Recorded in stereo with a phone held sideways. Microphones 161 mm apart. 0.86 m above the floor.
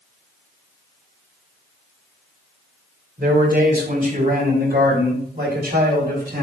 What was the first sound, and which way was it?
A man speaking, 55° right (ahead or behind).